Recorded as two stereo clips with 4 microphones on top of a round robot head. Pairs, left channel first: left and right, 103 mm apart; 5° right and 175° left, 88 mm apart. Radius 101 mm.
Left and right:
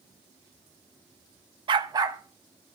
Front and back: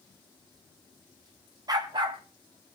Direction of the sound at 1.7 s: 130° right.